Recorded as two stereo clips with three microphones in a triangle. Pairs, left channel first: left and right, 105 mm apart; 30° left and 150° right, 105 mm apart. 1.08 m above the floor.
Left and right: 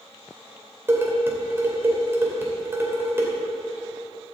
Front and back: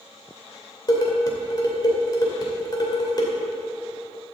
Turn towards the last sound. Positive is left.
turn(degrees=-20)